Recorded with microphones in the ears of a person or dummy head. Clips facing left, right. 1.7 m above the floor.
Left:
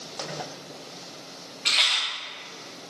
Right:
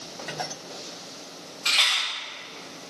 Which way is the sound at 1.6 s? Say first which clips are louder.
Right 1 dB; 25° left (ahead or behind).